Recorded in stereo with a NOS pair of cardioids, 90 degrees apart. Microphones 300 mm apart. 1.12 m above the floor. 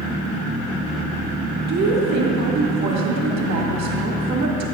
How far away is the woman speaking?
About 1.7 m.